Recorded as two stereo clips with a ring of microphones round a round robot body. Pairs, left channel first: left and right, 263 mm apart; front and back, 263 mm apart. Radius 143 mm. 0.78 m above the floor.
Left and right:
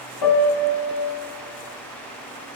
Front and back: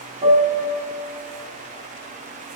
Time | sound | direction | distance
0.2 | a piano | 110° left | 1.6 m